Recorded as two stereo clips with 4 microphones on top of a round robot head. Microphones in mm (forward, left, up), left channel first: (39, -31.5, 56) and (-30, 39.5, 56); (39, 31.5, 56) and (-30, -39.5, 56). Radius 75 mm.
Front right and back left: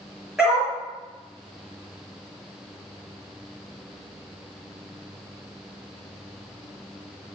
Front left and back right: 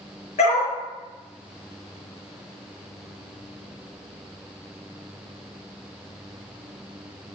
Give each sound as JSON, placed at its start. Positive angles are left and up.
{"t": 0.4, "sound": "a dog barking", "azimuth_deg": 50, "distance_m": 5.5}